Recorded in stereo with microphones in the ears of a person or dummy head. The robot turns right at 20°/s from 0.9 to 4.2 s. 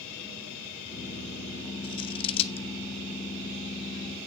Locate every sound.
1.8 s scissors: 25° left (ahead or behind), 0.8 m; by 2.7 s 30° left (ahead or behind), 0.8 m